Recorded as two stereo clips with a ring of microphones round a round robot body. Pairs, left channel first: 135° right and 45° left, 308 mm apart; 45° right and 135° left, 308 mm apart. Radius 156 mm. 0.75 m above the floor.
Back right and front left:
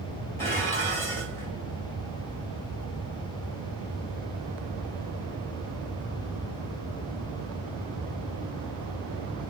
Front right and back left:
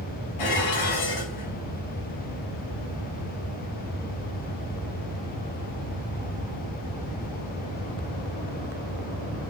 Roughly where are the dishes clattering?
Ahead right.